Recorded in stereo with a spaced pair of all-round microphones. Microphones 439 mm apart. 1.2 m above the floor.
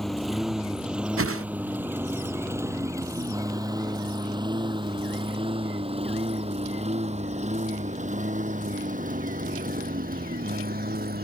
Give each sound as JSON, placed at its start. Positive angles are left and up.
{"t": 0.0, "sound": "a lawn mower", "side_deg": 0}
{"t": 1.2, "sound": "a whoosh", "side_deg": -30}